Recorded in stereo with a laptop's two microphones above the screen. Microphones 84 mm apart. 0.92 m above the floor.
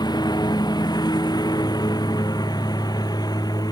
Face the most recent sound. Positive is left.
turn(degrees=50)  # may be behind; listen again after turning